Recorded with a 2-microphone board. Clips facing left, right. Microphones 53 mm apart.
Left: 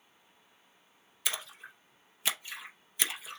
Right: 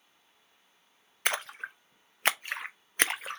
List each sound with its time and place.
1.2 s a splash: 55° right (ahead or behind), 0.5 m